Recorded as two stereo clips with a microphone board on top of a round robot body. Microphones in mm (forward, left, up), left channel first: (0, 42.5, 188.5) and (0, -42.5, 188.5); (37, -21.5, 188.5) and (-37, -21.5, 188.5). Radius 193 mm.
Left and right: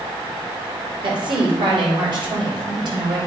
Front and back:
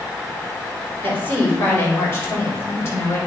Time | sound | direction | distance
1.0 | a woman speaking | 65° right | 3 m